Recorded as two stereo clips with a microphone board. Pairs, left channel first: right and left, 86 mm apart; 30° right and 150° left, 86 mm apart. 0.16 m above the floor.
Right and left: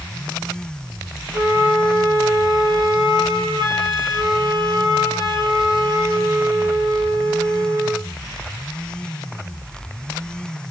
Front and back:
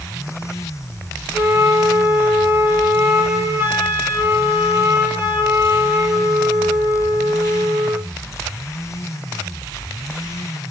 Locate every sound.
1.3 s a flute: 90° left, 2.5 m